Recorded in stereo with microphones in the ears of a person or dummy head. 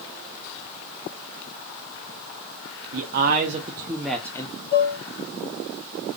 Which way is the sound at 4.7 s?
45° left (ahead or behind).